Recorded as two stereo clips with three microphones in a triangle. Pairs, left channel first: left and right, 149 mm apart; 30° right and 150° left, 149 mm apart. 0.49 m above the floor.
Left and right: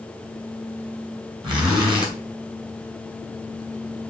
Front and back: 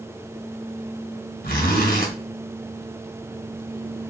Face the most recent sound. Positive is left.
turn(degrees=-30)